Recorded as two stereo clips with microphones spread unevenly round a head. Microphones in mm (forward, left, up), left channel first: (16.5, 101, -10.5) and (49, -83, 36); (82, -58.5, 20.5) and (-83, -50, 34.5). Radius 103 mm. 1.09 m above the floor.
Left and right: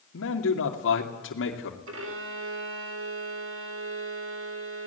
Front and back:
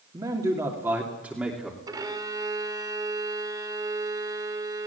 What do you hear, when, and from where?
0.1 s a man speaking: 105° left, 2.5 m; by 1.8 s 90° left, 3 m
1.9 s a violin: 115° right, 3.5 m